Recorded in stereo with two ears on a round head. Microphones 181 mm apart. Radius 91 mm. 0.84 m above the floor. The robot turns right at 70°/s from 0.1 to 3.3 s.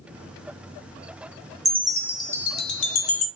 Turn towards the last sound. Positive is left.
turn(degrees=100)